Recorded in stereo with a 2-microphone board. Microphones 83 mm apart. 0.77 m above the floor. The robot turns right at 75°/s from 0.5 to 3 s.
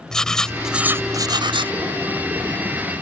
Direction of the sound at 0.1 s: 175° left.